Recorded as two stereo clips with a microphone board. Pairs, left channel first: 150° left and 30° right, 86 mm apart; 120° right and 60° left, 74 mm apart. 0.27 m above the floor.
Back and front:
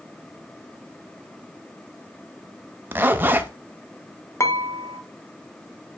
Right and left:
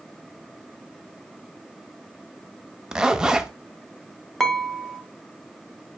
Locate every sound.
2.9 s a zipper: 5° right, 0.5 m
4.4 s dishes clattering: 160° left, 0.8 m